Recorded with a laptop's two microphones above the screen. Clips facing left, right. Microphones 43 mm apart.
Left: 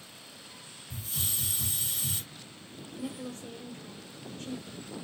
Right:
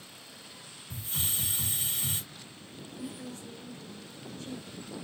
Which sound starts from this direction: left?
A woman speaking, at 3.0 s.